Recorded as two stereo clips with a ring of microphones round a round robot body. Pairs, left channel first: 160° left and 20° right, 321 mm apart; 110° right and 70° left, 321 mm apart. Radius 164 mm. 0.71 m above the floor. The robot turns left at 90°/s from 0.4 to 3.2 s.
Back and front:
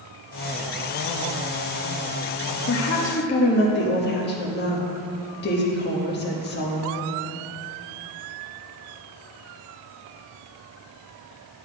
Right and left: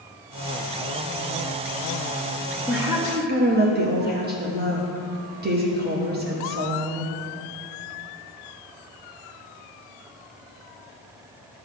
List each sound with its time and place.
2.7 s a woman speaking: 160° left, 1.4 m; by 7.1 s 115° left, 1.4 m